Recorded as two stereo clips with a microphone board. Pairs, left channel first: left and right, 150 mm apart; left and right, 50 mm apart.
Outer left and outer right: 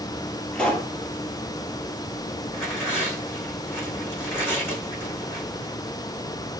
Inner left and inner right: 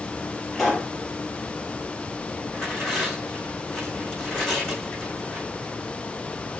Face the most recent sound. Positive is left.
turn(degrees=15)  # may be behind; listen again after turning